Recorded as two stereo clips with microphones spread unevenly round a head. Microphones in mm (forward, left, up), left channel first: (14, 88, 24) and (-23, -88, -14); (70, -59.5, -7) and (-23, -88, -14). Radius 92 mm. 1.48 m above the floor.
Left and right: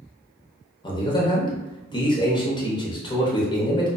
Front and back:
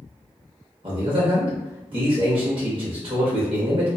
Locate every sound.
0.8 s a man speaking: 150° left, 0.7 m